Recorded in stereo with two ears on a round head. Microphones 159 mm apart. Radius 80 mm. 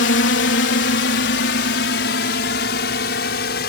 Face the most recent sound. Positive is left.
turn(degrees=60)  # may be behind; listen again after turning